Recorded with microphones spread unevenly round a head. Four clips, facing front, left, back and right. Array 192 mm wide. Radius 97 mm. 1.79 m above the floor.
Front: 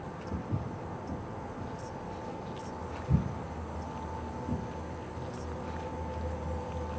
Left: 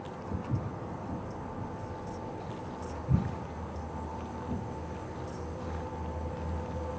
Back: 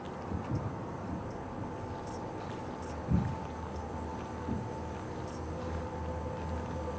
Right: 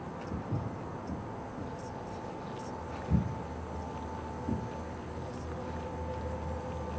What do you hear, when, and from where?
0.3 s footsteps: 165° left, 2.0 m; by 4.6 s 100° right, 3 m